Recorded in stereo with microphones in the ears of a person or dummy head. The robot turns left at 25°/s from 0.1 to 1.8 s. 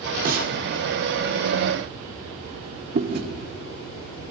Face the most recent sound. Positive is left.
turn(degrees=-55)  # may be behind; listen again after turning